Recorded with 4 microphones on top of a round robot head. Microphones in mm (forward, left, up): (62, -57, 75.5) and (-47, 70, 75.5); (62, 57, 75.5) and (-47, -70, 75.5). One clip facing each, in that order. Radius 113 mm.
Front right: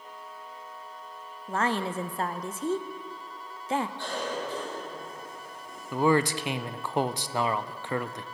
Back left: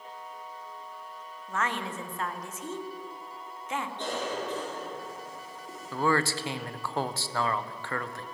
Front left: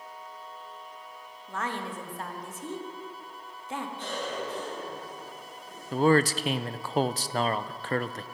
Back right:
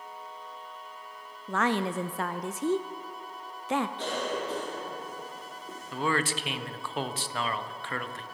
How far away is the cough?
About 4 m.